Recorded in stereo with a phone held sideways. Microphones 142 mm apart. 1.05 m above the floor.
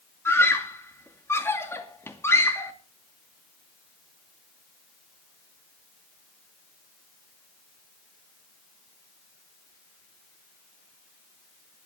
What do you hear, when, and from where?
0.2 s a scream: 15° left (ahead or behind), 2.5 m